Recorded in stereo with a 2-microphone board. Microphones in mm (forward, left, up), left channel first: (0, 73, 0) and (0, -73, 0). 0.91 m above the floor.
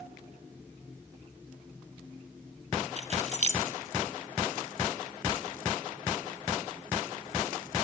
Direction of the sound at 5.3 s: 35° right (ahead or behind).